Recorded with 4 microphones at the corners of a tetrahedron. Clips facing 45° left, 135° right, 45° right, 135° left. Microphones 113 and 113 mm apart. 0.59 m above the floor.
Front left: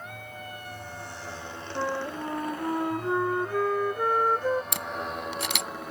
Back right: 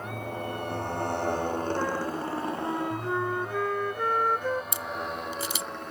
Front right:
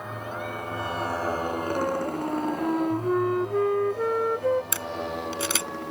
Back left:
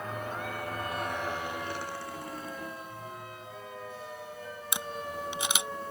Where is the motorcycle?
125° right; by 5.9 s 40° right.